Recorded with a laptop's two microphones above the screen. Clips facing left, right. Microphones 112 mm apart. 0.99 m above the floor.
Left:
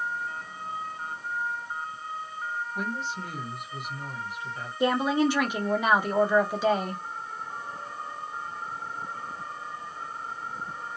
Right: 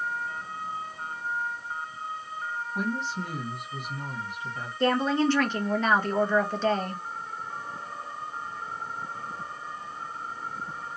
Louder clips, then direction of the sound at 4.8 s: Even; 10° left (ahead or behind).